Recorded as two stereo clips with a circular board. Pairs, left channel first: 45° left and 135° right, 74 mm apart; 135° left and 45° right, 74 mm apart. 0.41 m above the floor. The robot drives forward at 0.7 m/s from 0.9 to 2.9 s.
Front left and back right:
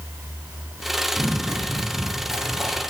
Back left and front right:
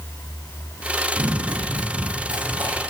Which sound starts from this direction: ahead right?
Running footsteps, at 1.1 s.